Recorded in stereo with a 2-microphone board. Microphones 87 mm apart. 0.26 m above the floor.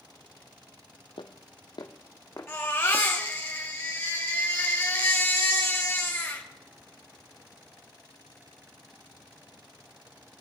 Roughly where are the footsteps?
Left.